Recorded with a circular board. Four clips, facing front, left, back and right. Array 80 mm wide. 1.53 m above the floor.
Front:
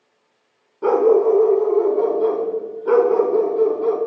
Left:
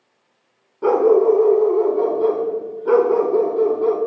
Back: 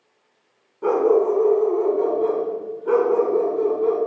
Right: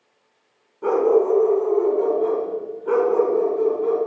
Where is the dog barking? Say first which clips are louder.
Left 3 dB, front 3 dB; 50° left, 1.2 m.